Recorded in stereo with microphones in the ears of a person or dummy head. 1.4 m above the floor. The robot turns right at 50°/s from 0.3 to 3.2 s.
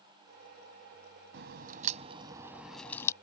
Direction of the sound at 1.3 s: 70° right.